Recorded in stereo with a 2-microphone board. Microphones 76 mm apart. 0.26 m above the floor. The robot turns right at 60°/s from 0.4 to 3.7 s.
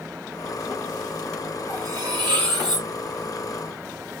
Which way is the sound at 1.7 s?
135° right.